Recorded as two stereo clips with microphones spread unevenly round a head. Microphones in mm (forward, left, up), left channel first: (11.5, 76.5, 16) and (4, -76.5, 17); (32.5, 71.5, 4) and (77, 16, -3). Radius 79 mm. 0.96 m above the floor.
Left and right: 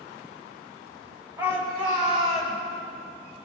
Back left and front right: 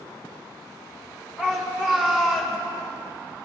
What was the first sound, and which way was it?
A shout, 155° right.